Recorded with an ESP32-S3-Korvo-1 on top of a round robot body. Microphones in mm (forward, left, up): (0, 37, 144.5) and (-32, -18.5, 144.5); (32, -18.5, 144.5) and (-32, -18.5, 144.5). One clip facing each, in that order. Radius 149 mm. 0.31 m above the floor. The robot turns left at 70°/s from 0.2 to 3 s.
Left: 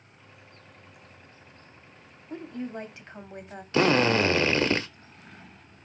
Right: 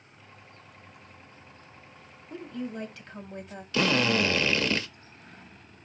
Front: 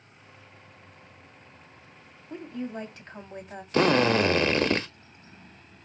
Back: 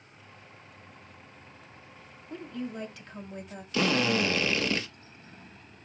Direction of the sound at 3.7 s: 15° left.